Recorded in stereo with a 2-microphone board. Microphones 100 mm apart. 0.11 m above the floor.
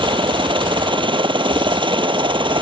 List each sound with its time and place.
0.0 s a helicopter: 60° right (ahead or behind)